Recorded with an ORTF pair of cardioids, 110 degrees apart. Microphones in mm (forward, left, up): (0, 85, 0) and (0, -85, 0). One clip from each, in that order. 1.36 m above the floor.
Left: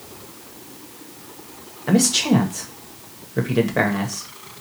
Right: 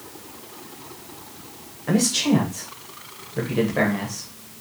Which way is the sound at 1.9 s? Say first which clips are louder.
Left 3 dB; 25° left.